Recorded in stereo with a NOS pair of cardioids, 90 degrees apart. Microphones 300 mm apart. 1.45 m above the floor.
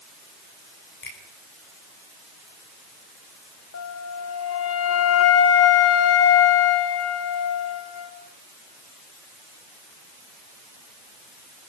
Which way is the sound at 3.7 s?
55° left.